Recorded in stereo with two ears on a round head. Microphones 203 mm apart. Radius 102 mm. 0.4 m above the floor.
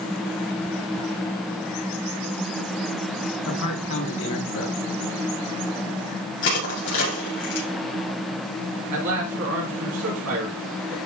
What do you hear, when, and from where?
3.5 s a man speaking: 65° left (ahead or behind), 4.5 m
6.4 s crushing: 55° left (ahead or behind), 5.5 m
8.9 s a man speaking: 70° right (ahead or behind), 3 m